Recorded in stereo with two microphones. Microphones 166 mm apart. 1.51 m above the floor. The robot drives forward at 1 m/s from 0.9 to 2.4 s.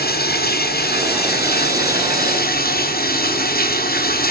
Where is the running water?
70° left (ahead or behind), 3.5 m; by 4.3 s 65° left (ahead or behind), 3.5 m.